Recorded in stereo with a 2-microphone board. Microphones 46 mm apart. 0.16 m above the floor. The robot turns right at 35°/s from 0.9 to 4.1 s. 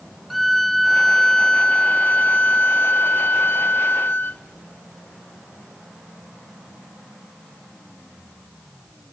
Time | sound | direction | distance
0.3 | a violin | straight ahead | 0.6 m